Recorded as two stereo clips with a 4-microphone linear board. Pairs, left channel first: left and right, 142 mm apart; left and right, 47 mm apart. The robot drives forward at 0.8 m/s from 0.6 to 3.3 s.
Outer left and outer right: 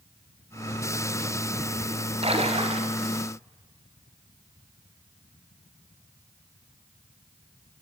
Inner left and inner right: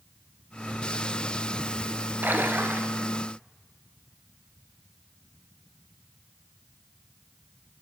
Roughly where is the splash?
Right.